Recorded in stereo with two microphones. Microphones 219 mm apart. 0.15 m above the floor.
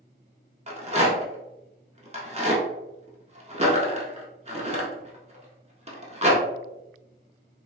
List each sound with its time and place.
0.7 s a rattle: 30° right (ahead or behind), 0.7 m